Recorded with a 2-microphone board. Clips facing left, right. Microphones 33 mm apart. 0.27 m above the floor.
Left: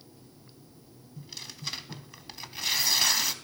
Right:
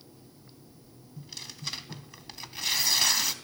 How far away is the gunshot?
No gunshot in this recording.